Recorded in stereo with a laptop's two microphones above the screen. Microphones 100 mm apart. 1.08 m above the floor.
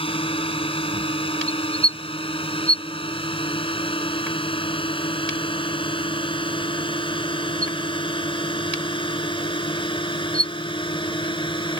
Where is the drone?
65° left (ahead or behind); by 11.8 s 55° left (ahead or behind).